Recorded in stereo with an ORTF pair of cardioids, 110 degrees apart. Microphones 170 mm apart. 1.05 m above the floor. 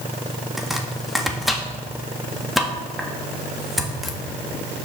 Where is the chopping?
Straight ahead, 1.9 m.